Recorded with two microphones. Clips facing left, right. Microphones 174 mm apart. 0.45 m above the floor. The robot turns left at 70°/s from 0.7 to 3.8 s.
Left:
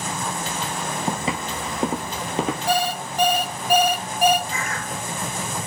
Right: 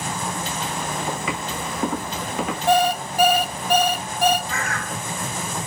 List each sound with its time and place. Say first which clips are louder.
1.1 s footsteps: left 1 dB; 40° left (ahead or behind), 1.0 m; by 2.6 s 30° left (ahead or behind), 0.7 m
2.7 s an alarm clock: right 5 dB; 125° right, 0.6 m; by 4.4 s 155° left, 0.6 m
4.5 s a bird: right 1 dB; 70° right (ahead or behind), 0.5 m